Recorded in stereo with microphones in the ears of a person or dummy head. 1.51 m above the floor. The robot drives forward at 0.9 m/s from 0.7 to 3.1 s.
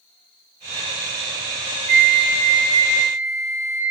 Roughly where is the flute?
Right.